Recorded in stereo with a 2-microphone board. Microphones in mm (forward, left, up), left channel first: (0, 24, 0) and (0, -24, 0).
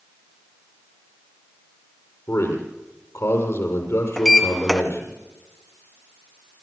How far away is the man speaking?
About 6 m.